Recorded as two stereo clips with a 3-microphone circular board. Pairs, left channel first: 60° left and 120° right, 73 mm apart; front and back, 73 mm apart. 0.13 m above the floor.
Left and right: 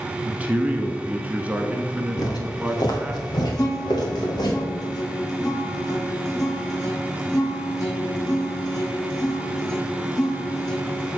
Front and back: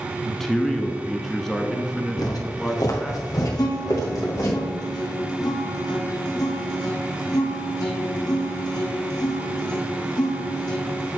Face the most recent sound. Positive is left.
turn(degrees=25)